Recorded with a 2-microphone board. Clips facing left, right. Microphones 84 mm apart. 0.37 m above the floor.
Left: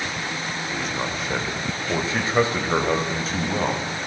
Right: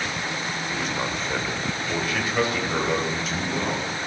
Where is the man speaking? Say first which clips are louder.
Even; 5° right (ahead or behind), 0.9 m; by 3.8 s 45° left (ahead or behind), 1.9 m.